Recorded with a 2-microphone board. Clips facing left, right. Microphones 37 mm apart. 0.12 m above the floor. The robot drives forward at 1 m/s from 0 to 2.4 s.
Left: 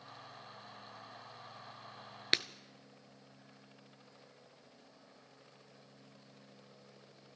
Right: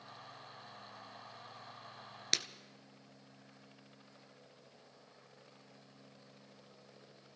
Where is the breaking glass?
35° left (ahead or behind), 0.5 m.